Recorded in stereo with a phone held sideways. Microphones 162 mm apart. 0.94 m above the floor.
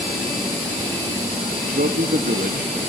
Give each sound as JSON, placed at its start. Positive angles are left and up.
{"t": 1.6, "sound": "a man speaking", "side_deg": -70, "distance_m": 1.5}